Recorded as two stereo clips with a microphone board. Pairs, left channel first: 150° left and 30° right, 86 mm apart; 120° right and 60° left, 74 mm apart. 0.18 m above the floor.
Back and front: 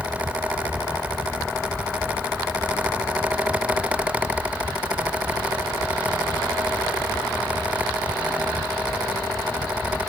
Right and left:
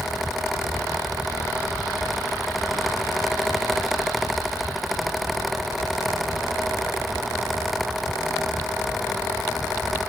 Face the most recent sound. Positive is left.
No sound to turn to.